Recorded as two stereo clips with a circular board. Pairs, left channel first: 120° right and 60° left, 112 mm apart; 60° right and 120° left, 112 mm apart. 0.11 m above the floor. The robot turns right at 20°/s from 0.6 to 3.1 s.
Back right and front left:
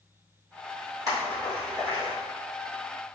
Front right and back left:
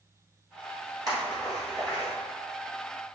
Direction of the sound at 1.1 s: 90° left.